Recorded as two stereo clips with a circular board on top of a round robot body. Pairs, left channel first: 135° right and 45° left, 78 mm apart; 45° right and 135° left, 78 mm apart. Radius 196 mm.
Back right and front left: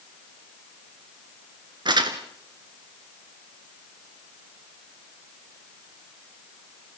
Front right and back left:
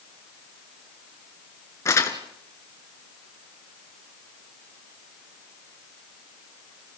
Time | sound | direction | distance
1.9 | crumpling | 10° left | 1.7 m